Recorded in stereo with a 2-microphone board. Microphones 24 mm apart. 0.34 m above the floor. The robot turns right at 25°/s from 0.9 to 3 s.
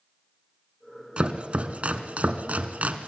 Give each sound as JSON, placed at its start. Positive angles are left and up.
{"t": 1.2, "sound": "chopping", "side_deg": -45, "distance_m": 1.3}